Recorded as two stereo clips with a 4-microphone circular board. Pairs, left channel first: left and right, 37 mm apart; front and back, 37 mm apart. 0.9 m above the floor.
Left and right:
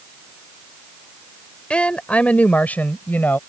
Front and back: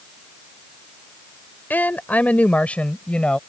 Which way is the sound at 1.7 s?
30° left.